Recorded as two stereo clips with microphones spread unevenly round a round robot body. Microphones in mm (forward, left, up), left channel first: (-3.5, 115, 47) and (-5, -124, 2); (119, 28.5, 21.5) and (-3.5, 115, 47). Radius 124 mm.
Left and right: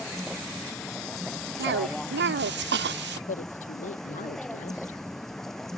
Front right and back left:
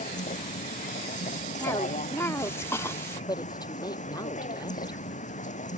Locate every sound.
0.0 s a vehicle: straight ahead
1.6 s a cough: 100° right
3.3 s a woman speaking: 30° left